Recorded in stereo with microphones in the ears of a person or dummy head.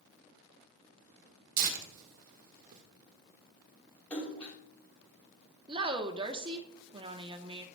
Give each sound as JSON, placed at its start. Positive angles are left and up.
{"t": 1.6, "sound": "tearing paper", "side_deg": -50, "distance_m": 1.5}
{"t": 4.1, "sound": "a splash", "side_deg": 15, "distance_m": 3.0}
{"t": 5.7, "sound": "a woman speaking", "side_deg": -25, "distance_m": 1.0}